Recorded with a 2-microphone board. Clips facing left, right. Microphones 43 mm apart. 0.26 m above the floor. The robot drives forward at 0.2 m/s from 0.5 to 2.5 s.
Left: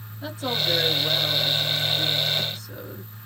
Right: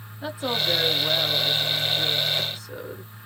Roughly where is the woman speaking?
Centre.